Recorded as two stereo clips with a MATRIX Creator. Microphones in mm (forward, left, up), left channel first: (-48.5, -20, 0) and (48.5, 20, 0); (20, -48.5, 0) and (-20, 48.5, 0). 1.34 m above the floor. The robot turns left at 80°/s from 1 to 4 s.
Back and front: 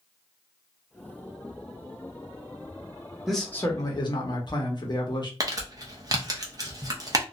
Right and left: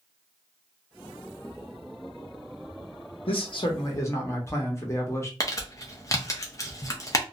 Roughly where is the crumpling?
Ahead.